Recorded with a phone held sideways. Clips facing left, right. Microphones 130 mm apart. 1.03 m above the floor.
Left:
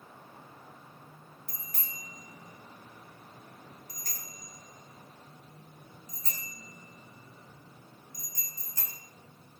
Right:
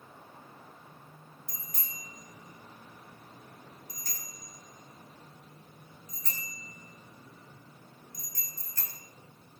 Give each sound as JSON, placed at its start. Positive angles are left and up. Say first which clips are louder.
{"t": 1.5, "sound": "a bicycle bell", "louder": "left 1 dB", "side_deg": 70, "distance_m": 4.5}